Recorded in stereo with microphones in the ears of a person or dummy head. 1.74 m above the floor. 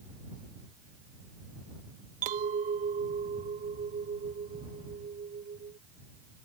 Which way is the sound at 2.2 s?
45° right (ahead or behind).